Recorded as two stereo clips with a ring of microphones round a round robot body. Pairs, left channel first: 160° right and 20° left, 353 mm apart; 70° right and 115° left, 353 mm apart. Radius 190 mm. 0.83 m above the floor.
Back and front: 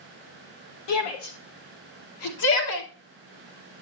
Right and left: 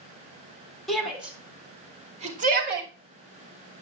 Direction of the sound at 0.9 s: 155° right.